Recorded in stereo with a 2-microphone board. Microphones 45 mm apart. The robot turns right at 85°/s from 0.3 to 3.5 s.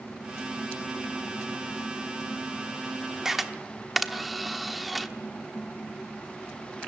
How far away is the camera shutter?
About 1.0 m.